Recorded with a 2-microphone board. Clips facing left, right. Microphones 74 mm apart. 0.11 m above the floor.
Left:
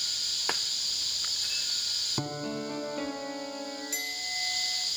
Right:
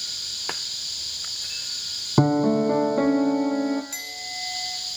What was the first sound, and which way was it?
A piano, 45° right (ahead or behind).